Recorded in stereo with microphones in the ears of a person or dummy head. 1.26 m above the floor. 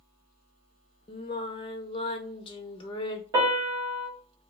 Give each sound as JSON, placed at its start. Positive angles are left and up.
{"t": 1.1, "sound": "singing", "side_deg": 25, "distance_m": 0.5}
{"t": 3.3, "sound": "a piano", "side_deg": -20, "distance_m": 1.3}